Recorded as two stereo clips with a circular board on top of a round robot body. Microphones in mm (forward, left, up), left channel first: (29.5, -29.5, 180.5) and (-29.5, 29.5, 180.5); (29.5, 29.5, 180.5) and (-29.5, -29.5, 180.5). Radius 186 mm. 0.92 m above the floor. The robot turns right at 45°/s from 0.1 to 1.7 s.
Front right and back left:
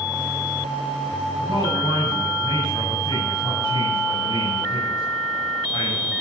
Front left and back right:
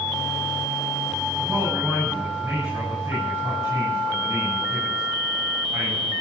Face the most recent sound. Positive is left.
turn(degrees=-80)